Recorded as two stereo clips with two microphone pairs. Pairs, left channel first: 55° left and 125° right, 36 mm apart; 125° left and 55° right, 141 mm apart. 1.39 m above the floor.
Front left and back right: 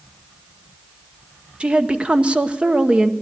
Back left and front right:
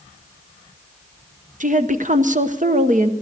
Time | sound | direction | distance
1.6 | a woman speaking | 70° right | 0.9 m